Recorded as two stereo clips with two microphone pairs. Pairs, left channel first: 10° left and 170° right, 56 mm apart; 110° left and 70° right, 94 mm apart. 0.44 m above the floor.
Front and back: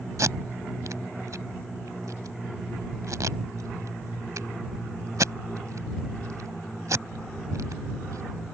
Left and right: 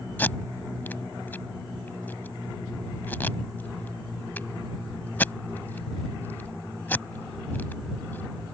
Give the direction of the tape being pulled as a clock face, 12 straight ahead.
6 o'clock.